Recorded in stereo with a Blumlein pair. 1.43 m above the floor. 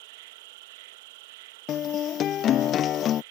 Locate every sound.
0.0 s an insect: 50° right
1.7 s a guitar: 30° left